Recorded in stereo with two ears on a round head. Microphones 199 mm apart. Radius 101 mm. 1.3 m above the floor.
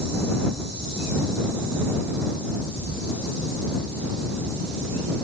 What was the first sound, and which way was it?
Only background noise.